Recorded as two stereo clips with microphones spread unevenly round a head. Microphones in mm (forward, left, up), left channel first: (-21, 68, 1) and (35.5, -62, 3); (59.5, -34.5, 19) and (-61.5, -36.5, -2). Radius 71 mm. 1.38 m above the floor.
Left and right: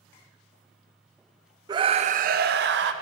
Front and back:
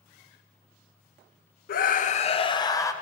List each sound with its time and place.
1.7 s a scream: 5° right, 0.7 m; by 2.9 s 65° right, 1.0 m